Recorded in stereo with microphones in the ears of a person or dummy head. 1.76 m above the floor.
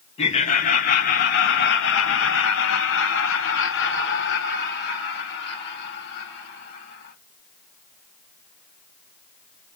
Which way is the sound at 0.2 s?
40° left (ahead or behind).